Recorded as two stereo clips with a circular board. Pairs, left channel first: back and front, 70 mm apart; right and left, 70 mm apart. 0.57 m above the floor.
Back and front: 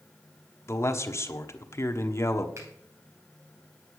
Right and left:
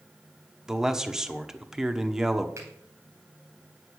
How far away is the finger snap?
About 4 m.